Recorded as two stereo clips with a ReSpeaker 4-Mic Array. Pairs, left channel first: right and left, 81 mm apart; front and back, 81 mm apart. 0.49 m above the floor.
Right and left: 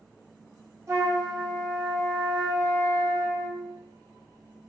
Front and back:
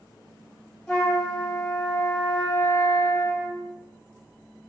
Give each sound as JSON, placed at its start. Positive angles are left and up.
{"t": 0.9, "sound": "a flute", "azimuth_deg": 80, "distance_m": 1.0}